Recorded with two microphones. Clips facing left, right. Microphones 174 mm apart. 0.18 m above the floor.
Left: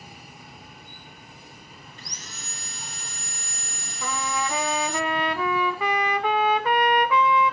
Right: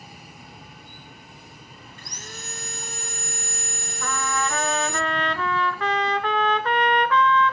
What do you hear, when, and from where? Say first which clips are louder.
2.0 s sawing: right 7 dB; 50° right (ahead or behind), 0.6 m
4.0 s a trumpet: right 1 dB; 10° left (ahead or behind), 1.2 m